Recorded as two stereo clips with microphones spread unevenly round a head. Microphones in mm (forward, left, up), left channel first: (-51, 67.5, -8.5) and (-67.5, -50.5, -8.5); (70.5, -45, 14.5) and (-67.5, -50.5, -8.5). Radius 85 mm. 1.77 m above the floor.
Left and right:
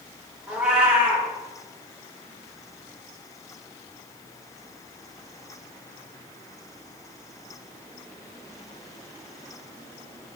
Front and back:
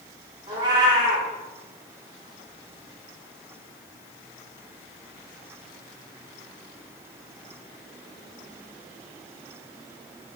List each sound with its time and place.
0.5 s a cat meowing: 165° right, 1.0 m